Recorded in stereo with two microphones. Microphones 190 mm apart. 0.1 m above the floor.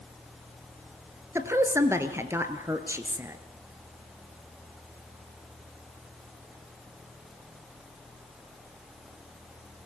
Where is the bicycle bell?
I don't hear a bicycle bell.